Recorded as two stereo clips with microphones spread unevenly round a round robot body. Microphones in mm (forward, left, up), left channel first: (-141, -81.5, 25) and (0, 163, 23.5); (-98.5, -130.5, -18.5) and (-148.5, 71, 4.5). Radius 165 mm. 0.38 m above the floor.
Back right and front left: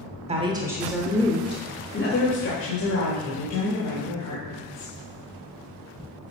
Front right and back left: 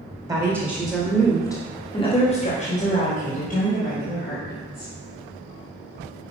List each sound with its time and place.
0.3 s a woman speaking: 35° left, 1.1 m; by 4.9 s 115° right, 2.5 m